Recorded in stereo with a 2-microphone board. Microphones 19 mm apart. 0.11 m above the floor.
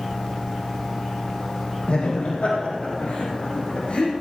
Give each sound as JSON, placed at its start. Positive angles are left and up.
{"t": 1.9, "sound": "laughter", "side_deg": 70, "distance_m": 4.5}